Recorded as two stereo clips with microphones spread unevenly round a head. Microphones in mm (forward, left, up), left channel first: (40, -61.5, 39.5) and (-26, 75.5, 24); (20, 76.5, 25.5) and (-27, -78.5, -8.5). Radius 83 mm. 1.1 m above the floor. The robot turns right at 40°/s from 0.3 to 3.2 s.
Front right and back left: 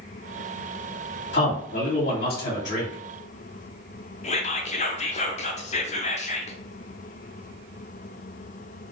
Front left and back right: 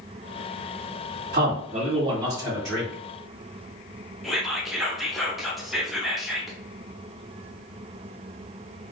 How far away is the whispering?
About 0.8 m.